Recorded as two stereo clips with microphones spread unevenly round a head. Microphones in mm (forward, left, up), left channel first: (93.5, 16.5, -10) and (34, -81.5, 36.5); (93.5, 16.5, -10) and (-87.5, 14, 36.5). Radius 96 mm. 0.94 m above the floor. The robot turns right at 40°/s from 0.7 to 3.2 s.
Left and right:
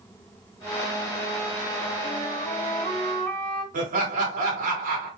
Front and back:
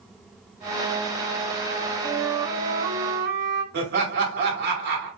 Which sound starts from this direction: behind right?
Laughter, at 3.7 s.